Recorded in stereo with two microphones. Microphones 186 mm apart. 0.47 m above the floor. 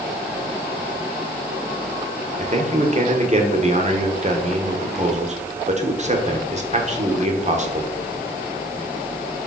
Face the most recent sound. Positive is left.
turn(degrees=-40)  # may be behind; listen again after turning